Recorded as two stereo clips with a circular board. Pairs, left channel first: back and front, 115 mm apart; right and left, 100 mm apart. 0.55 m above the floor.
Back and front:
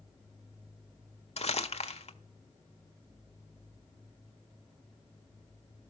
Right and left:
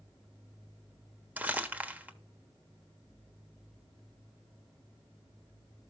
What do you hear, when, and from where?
1.4 s crumpling: 165° left, 1.1 m